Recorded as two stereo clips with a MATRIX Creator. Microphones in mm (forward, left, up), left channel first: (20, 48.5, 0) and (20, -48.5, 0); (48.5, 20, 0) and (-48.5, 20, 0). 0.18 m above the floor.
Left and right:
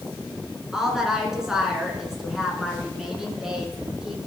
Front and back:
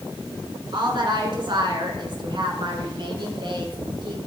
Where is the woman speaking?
175° right, 2.5 m.